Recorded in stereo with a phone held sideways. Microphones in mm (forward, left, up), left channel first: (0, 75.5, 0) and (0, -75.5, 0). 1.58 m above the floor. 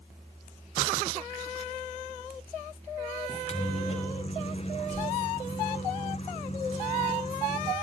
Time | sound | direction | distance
3.3 | a microwave | 45° left (ahead or behind) | 1.1 m